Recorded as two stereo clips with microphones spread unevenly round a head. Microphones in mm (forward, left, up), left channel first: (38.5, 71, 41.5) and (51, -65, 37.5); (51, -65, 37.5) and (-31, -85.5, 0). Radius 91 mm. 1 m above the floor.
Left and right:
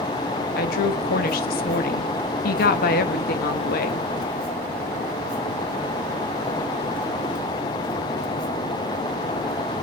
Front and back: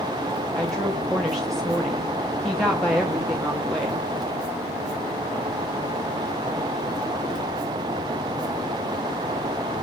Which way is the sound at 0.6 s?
105° left.